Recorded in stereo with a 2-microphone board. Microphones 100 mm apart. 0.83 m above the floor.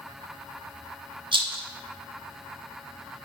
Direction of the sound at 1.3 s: 55° right (ahead or behind).